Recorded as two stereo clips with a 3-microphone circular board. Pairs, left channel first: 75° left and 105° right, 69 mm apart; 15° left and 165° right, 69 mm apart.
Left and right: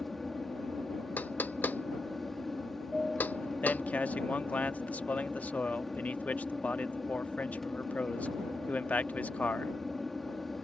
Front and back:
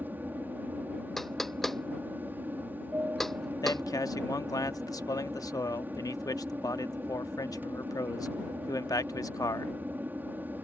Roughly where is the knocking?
Left.